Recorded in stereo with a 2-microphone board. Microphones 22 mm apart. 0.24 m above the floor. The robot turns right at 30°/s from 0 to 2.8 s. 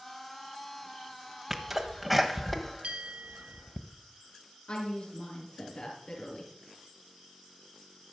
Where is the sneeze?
15° right (ahead or behind), 1.0 m; by 3.8 s 5° left (ahead or behind), 1.0 m.